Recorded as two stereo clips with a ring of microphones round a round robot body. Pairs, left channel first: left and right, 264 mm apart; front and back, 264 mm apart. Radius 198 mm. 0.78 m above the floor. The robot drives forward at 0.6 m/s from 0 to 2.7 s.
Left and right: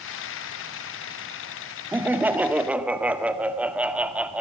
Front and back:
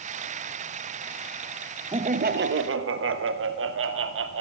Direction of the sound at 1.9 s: 160° right.